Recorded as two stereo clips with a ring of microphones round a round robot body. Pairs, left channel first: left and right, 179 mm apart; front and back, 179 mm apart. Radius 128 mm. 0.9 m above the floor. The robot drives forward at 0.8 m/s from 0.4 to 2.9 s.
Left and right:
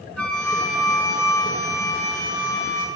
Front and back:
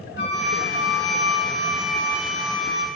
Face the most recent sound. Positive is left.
turn(degrees=15)